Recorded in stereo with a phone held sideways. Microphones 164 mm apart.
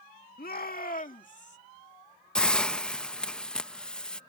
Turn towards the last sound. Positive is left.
turn(degrees=5)  # may be behind; listen again after turning